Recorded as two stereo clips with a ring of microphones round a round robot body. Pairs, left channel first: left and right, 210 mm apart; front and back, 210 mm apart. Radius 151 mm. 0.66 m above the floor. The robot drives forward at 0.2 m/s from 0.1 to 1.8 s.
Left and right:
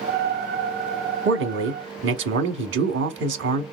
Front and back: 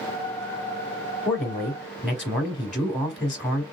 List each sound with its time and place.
1.2 s a man speaking: 80° right, 1.0 m; by 3.6 s 90° right, 1.0 m